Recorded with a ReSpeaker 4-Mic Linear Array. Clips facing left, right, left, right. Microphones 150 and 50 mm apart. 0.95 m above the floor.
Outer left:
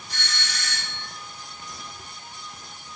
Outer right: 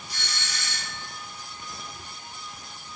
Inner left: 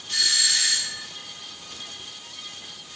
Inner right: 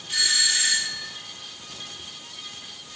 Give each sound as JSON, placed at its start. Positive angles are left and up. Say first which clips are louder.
{"t": 0.1, "sound": "a doorbell", "louder": "outer left 3 dB, inner right 1 dB", "side_deg": -10, "distance_m": 4.5}